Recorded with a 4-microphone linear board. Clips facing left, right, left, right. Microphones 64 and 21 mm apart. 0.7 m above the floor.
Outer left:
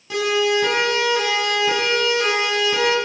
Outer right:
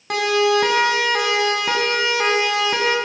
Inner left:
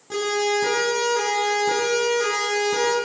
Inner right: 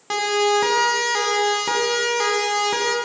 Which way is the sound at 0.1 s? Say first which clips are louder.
Outer right 2 dB, inner right 3 dB; 65° right (ahead or behind).